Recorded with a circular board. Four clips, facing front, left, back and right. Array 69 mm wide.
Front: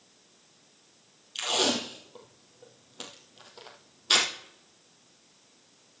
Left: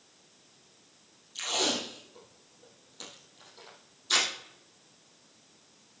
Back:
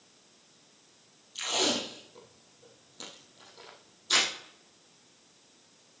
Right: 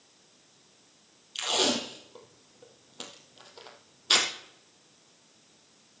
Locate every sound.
1.4 s tape being pulled: 45° right, 2.5 m